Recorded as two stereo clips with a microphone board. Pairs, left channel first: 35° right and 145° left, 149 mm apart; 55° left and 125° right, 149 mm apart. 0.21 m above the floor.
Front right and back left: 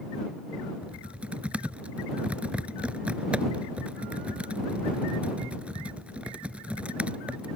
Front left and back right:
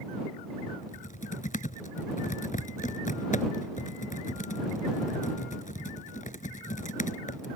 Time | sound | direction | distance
0.8 | typing on a keyboard | 65° left | ?